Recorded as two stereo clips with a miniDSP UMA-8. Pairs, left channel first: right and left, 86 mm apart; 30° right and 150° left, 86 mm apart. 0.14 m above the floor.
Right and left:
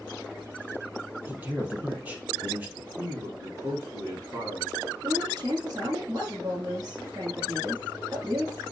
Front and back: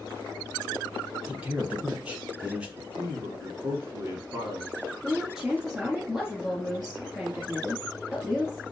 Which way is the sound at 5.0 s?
65° left.